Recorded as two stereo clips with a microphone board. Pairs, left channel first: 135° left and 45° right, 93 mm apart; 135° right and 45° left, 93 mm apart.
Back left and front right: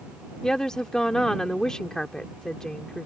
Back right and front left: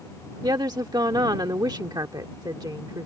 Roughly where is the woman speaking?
Ahead left.